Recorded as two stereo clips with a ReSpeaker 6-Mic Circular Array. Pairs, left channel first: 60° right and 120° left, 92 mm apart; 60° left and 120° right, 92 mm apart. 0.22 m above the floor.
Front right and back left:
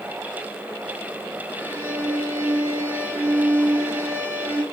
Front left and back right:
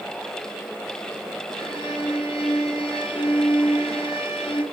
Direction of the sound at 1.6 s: 50° left.